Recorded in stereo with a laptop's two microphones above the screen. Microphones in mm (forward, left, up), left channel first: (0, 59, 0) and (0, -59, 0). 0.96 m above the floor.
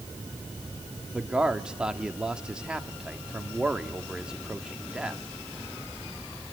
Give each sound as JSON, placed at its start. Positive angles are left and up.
{"t": 1.1, "sound": "a man speaking", "side_deg": -5, "distance_m": 1.8}